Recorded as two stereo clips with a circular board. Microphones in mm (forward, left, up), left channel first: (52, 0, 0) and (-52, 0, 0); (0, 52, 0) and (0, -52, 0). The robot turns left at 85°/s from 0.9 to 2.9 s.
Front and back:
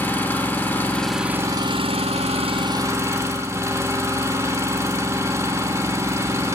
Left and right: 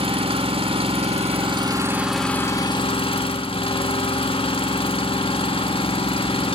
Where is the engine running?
70° right, 1.3 m; by 6.5 s 120° left, 1.3 m.